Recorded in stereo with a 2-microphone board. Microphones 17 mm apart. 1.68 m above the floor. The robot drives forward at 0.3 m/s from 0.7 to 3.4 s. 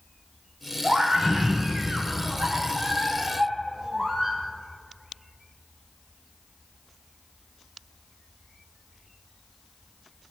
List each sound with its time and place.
0.8 s a scream: 55° right (ahead or behind), 3.5 m; by 4.4 s 45° right (ahead or behind), 4 m